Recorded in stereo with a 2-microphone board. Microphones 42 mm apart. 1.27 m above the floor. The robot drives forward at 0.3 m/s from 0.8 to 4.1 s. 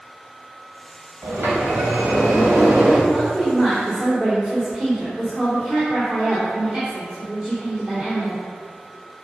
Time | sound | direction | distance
1.2 | a sliding door | 70° right (ahead or behind) | 4 m
3.1 | a woman speaking | 20° right (ahead or behind) | 3.5 m